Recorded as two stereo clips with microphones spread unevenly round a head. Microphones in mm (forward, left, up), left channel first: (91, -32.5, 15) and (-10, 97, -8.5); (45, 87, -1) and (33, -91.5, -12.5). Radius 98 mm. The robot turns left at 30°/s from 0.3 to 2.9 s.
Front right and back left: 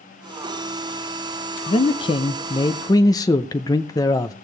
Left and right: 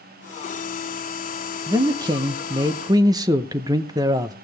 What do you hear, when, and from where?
1.7 s a man speaking: 75° right, 0.6 m; by 4.3 s 110° right, 0.6 m